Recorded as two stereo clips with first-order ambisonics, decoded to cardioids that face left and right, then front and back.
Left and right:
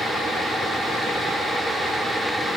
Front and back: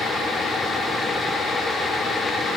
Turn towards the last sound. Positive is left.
No sound to turn to.